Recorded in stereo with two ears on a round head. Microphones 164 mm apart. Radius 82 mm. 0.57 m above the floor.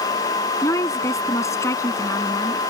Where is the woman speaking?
15° left (ahead or behind).